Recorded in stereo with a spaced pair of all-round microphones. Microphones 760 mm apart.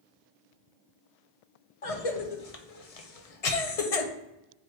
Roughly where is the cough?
Left.